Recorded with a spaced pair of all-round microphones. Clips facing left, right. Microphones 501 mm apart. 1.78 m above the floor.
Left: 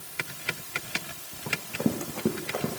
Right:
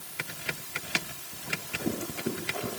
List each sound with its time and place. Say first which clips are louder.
1.5 s running footsteps: left 5 dB; 70° left (ahead or behind), 5 m